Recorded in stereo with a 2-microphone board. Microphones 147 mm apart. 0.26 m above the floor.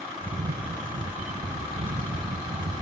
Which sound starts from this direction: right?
A camera shutter, at 0.2 s.